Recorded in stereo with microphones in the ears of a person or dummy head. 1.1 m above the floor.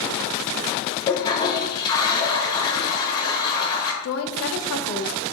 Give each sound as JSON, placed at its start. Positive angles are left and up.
{"t": 1.1, "sound": "a toilet flushing", "side_deg": 25, "distance_m": 0.8}
{"t": 4.0, "sound": "a woman speaking", "side_deg": 70, "distance_m": 0.6}